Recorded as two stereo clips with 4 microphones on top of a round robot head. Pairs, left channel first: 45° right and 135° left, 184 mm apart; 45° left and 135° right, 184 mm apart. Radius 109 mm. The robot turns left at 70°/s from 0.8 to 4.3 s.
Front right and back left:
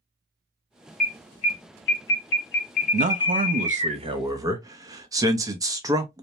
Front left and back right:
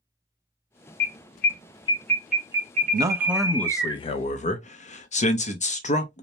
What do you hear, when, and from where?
1.0 s an alarm: 40° left, 0.9 m; by 3.9 s 165° right, 0.9 m
2.9 s a man speaking: 170° left, 0.7 m; by 6.2 s 70° left, 0.7 m